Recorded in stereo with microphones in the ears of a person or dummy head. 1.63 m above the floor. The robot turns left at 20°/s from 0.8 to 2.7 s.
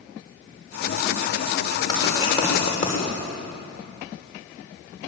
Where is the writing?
25° left (ahead or behind), 6 m; by 3.0 s 40° left (ahead or behind), 6 m.